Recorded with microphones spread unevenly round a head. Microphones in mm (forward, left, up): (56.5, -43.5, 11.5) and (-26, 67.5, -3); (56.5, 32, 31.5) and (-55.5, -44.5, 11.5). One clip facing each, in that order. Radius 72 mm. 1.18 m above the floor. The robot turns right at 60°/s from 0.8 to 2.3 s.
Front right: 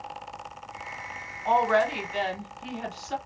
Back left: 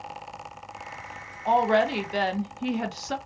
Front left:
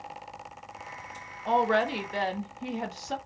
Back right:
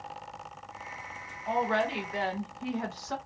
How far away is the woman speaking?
About 0.6 m.